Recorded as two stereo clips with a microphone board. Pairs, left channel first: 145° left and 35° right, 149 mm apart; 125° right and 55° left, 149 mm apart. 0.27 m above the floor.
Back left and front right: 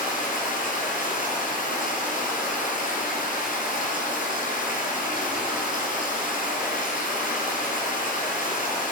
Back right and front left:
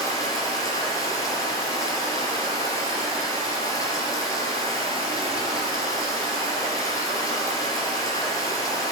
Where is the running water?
170° left, 3 m.